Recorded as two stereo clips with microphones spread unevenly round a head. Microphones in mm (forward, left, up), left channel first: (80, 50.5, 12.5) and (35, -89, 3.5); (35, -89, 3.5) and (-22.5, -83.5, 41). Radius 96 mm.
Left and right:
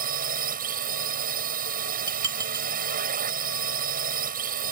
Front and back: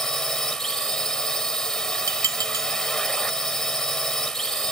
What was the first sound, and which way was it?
A drone, 90° right.